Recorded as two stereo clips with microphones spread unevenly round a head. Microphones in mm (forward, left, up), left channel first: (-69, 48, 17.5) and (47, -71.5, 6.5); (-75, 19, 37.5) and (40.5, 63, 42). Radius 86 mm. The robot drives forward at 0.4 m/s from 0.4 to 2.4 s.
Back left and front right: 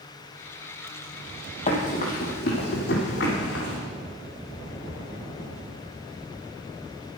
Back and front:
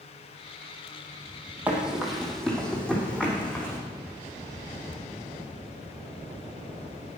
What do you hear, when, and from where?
1.7 s running footsteps: 95° left, 2 m; by 3.8 s 120° left, 4 m